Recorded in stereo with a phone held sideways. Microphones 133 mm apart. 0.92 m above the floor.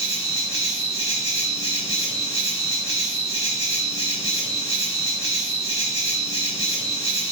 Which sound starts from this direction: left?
An insect, at 0.0 s.